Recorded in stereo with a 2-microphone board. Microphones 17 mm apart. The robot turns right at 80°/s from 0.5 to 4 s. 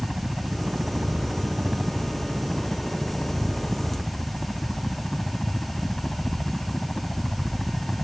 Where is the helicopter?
130° right; by 8.0 s 150° left.